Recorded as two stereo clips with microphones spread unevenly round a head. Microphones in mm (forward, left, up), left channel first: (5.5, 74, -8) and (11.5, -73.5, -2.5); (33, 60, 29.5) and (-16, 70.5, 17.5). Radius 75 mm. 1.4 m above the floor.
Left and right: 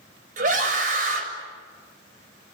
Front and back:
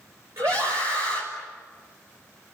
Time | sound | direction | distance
0.4 | a scream | 130° right | 6.5 m